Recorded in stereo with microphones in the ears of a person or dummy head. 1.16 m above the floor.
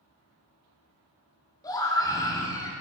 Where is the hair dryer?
I don't hear a hair dryer.